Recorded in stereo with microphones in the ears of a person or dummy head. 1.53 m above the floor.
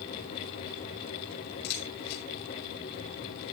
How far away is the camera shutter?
About 6.5 m.